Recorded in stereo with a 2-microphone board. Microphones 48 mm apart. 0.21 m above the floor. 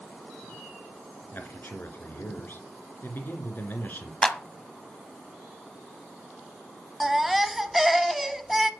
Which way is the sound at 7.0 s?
5° right (ahead or behind).